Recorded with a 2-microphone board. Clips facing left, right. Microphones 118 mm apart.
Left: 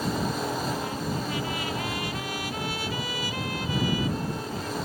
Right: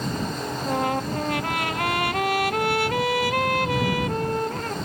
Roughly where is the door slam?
I don't hear a door slam.